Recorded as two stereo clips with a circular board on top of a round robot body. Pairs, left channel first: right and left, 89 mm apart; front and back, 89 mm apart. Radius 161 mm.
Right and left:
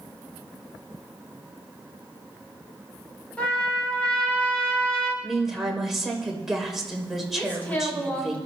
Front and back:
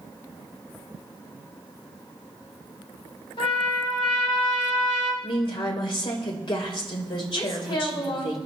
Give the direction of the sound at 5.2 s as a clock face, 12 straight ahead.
12 o'clock.